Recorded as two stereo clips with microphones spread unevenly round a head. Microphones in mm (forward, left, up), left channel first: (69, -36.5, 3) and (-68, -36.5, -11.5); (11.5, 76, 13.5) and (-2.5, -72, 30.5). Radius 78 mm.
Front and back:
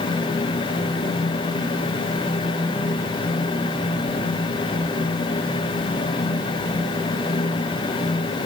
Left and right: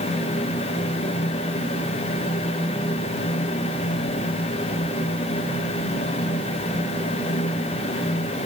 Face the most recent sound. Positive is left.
No sound to turn to.